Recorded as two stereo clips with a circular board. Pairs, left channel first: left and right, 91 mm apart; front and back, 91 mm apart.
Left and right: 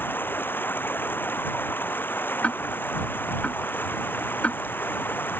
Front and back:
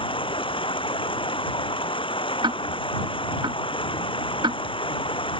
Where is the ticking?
160° left.